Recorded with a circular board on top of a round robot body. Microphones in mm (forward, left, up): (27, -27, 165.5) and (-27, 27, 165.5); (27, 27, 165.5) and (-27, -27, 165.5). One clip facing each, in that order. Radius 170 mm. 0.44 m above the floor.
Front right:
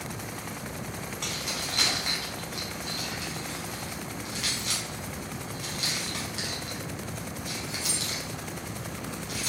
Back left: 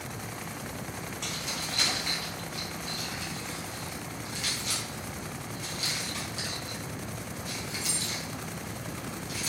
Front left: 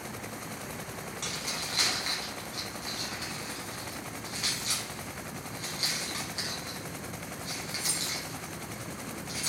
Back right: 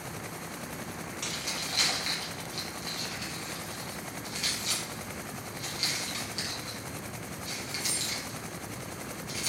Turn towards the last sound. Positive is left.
turn(degrees=-15)